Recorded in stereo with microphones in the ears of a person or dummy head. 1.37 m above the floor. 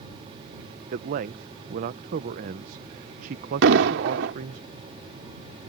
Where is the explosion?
70° right (ahead or behind).